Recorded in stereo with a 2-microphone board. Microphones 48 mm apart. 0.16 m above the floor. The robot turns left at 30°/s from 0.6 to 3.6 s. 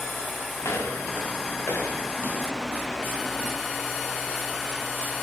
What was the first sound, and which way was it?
Footsteps, 70° left (ahead or behind).